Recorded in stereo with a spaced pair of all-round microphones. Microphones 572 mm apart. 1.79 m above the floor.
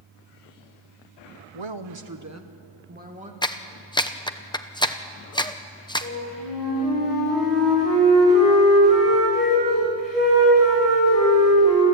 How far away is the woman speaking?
About 1.1 m.